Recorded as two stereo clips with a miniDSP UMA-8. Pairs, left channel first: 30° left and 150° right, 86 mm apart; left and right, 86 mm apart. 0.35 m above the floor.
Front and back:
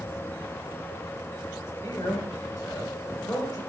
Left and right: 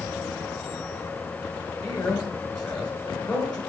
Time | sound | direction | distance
1.8 | a man speaking | 35° left | 1.3 m